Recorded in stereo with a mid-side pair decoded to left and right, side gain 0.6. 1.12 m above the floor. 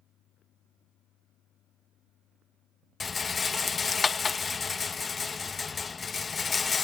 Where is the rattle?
25° left.